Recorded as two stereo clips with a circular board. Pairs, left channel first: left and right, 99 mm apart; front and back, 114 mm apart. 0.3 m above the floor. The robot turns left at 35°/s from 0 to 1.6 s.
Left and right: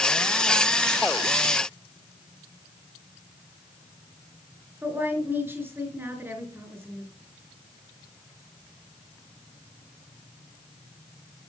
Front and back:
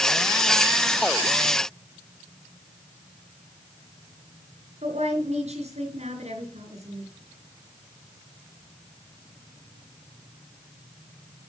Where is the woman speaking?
160° right, 4.5 m.